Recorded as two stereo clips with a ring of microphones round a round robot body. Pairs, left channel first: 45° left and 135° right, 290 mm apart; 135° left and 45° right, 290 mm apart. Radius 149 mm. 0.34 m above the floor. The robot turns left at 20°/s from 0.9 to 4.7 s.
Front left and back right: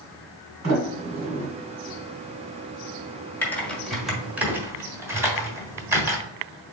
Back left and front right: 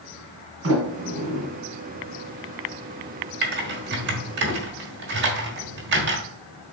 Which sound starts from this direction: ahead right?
Typing on a keyboard, at 3.4 s.